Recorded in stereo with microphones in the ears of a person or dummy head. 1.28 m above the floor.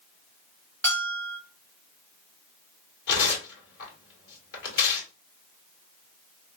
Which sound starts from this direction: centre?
A bell, at 0.8 s.